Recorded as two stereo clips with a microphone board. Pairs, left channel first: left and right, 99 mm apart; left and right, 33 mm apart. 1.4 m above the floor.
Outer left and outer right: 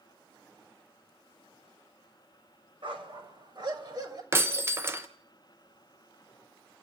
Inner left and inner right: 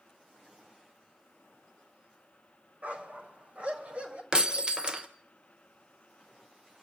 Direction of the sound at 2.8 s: 55° right (ahead or behind).